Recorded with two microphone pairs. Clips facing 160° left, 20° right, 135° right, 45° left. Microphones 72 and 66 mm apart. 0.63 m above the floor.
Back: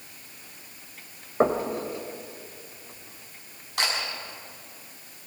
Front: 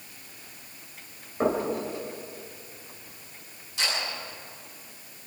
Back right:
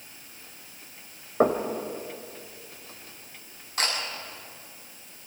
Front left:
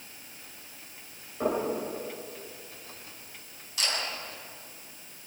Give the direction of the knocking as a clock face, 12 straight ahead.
5 o'clock.